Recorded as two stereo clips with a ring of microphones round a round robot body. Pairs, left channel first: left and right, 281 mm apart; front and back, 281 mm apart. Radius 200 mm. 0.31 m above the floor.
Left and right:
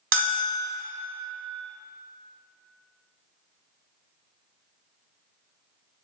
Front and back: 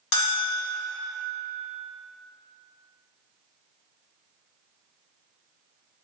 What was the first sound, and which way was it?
A bell, 50° right.